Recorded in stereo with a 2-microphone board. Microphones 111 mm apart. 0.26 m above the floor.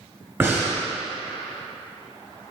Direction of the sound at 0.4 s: 20° right (ahead or behind).